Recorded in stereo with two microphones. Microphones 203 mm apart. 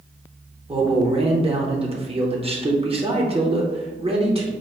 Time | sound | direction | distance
0.7 | a man speaking | 30° right (ahead or behind) | 0.8 m